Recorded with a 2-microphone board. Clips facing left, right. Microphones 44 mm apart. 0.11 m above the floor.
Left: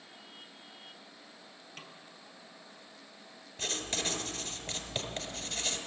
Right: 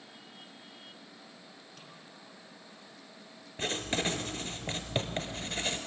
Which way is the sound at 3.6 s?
30° right (ahead or behind).